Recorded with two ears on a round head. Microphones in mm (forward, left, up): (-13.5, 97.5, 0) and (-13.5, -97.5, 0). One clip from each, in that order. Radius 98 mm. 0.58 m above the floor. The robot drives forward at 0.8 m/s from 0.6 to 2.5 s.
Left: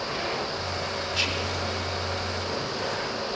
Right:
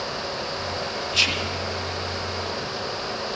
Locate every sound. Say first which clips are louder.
1.1 s whispering: right 7 dB; 20° right (ahead or behind), 0.7 m; by 1.6 s 25° right (ahead or behind), 0.6 m